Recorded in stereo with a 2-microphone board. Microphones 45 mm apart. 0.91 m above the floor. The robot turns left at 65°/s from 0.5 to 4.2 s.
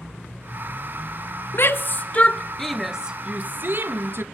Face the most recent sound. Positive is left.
turn(degrees=-55)  # may be behind; listen again after turning